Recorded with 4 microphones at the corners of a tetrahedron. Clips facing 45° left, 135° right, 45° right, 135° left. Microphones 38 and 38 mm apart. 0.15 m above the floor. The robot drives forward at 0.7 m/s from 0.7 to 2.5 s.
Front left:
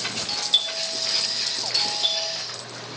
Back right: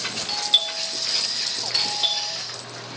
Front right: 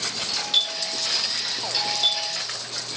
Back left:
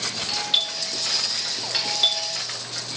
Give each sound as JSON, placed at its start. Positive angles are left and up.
{"t": 0.3, "sound": "a doorbell", "azimuth_deg": 170, "distance_m": 2.5}